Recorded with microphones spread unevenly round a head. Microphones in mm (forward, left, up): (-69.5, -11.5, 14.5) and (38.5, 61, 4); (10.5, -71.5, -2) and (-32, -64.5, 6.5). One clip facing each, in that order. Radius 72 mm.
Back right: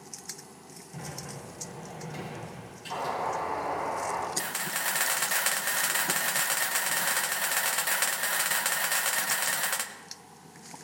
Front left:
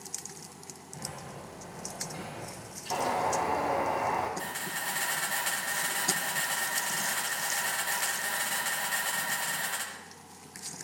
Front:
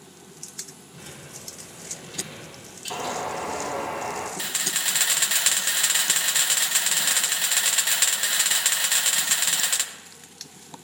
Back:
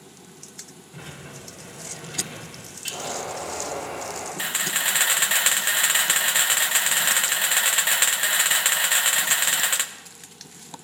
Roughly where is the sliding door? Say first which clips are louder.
Back right 2 dB, back 4 dB; behind right.